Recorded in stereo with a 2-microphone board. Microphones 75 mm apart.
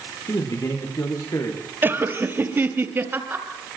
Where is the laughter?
30° right (ahead or behind), 3 m.